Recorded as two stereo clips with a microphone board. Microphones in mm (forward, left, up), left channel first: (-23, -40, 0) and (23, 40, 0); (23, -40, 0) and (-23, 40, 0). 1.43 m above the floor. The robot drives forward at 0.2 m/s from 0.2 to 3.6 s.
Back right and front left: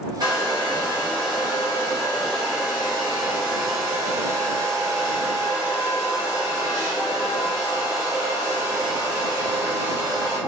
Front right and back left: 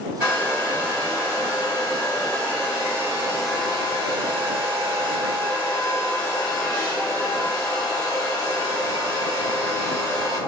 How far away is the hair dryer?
About 1.7 m.